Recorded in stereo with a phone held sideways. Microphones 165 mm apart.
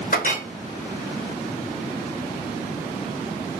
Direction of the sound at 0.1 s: 60° left (ahead or behind).